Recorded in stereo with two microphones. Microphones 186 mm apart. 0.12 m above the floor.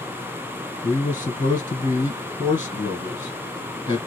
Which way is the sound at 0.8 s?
25° left (ahead or behind).